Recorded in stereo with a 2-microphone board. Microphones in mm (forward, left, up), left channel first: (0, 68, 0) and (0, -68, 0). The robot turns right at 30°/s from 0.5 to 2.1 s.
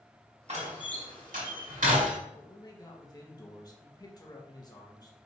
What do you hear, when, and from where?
0.5 s a door slam: 55° right (ahead or behind), 2 m; by 2.2 s 75° right (ahead or behind), 2 m
2.4 s a man speaking: 25° left (ahead or behind), 1.5 m